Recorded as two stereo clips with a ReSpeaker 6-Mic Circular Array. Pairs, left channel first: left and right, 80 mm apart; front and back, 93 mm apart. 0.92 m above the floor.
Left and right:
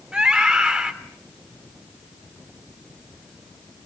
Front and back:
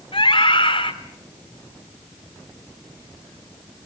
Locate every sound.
0.1 s a scream: 10° right, 3.5 m